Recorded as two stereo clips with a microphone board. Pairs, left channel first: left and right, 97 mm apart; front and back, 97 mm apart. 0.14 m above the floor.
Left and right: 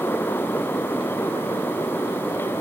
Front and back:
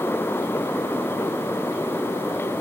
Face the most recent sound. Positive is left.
No sound to turn to.